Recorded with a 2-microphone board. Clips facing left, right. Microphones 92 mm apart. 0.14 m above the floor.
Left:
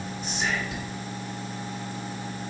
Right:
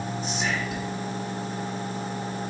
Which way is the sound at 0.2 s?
Centre (ahead or behind).